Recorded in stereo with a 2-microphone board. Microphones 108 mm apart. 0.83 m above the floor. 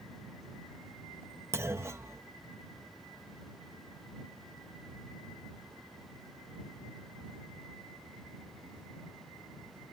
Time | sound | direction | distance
1.5 | a clunk | 25° right (ahead or behind) | ?